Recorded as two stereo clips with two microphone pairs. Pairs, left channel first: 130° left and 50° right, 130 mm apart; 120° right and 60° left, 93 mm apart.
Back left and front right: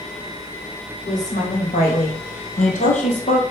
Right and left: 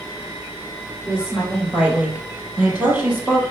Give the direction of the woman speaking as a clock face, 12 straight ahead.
7 o'clock.